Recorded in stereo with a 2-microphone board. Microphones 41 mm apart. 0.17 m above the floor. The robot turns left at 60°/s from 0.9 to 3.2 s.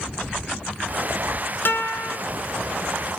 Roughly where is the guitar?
Left.